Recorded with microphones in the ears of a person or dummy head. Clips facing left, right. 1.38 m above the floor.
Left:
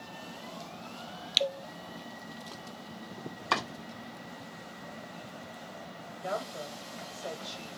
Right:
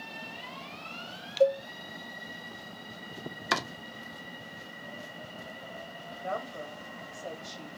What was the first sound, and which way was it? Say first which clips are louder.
A cowbell: right 10 dB; 40° right (ahead or behind).